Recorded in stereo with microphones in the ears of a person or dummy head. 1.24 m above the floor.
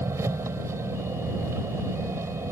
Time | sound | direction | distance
0.0 | an engine running | 15° right (ahead or behind) | ?